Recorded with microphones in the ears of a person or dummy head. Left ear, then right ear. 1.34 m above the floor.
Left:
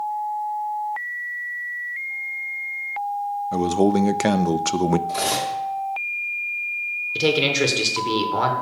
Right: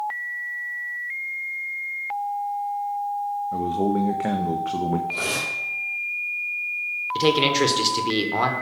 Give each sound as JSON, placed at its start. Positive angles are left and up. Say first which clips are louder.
{"t": 3.5, "sound": "a man speaking", "louder": "left 6 dB", "side_deg": 80, "distance_m": 0.5}
{"t": 5.1, "sound": "cutlery clinking", "louder": "left 2 dB", "side_deg": 60, "distance_m": 2.5}
{"t": 7.2, "sound": "a man speaking", "louder": "even", "side_deg": 0, "distance_m": 1.0}